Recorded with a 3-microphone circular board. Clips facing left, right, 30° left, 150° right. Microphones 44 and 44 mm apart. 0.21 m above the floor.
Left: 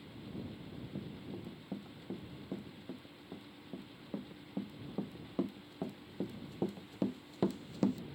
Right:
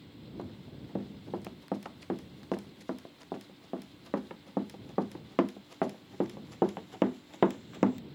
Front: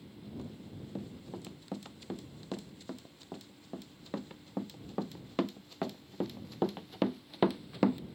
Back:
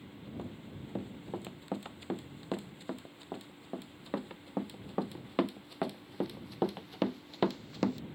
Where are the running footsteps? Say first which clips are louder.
Right 2 dB, back 2 dB; 85° right; by 8.0 s 45° right.